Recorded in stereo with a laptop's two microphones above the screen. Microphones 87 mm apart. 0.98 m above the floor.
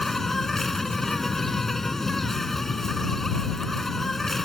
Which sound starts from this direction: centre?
An insect, at 0.0 s.